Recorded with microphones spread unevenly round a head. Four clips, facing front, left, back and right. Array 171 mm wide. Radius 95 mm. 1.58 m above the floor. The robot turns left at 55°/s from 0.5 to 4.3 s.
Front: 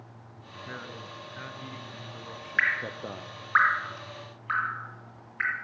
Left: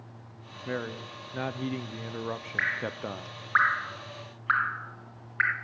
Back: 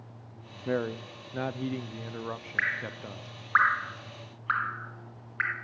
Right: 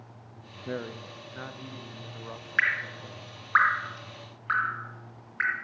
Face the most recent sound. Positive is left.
turn(degrees=170)